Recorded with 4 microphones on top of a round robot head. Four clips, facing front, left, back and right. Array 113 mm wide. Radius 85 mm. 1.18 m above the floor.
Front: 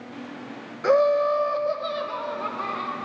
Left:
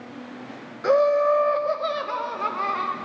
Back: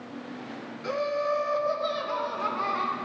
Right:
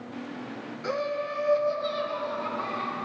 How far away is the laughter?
About 0.6 m.